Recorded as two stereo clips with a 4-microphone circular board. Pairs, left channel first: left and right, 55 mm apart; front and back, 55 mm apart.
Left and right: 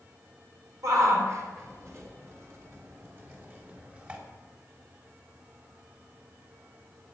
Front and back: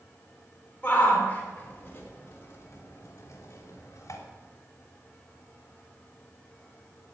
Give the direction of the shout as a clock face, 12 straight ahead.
2 o'clock.